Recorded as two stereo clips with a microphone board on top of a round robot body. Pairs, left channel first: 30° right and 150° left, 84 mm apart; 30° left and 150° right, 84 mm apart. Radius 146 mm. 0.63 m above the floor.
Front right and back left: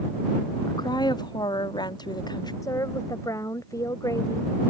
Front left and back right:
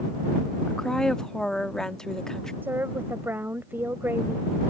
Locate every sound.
0.7 s a woman speaking: 50° right
2.6 s a woman speaking: 80° right